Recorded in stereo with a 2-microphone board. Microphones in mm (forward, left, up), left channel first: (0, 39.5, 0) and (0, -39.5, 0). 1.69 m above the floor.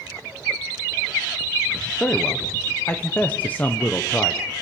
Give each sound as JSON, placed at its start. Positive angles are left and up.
{"t": 2.0, "sound": "a man speaking", "side_deg": 20, "distance_m": 1.2}